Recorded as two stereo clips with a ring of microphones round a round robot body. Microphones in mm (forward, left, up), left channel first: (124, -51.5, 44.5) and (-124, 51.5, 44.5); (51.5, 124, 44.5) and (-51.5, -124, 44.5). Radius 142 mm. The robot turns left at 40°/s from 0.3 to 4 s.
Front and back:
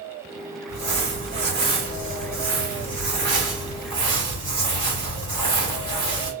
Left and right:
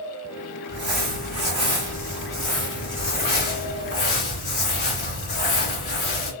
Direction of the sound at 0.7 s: 135° right.